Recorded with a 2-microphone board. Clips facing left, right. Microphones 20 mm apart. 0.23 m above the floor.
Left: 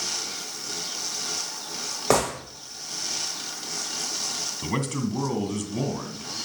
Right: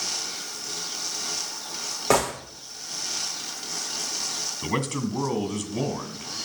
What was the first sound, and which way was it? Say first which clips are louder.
A gunshot: even; 10° left (ahead or behind).